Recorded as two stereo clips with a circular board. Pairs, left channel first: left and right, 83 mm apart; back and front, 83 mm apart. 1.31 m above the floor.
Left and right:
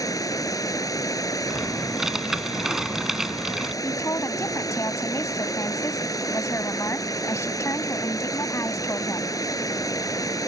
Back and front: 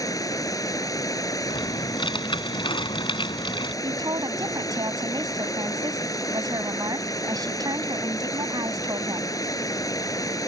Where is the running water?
135° left.